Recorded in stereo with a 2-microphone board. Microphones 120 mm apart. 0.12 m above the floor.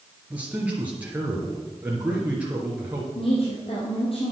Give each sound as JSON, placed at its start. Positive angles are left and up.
{"t": 0.3, "sound": "a man speaking", "side_deg": -10, "distance_m": 2.0}
{"t": 3.1, "sound": "a woman speaking", "side_deg": 55, "distance_m": 3.0}